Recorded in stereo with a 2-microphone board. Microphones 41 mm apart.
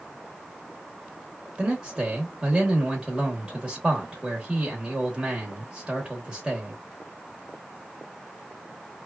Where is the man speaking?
20° right (ahead or behind), 1.0 m.